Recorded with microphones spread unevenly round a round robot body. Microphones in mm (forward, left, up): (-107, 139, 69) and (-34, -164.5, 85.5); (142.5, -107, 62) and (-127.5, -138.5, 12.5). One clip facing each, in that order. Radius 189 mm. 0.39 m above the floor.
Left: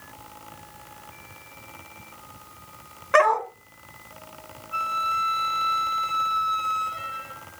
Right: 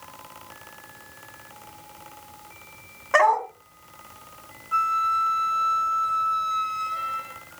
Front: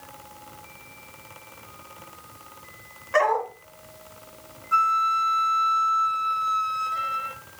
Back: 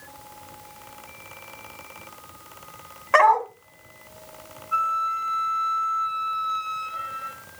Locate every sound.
3.1 s a dog barking: 165° right, 1.3 m
4.7 s a flute: 15° right, 1.5 m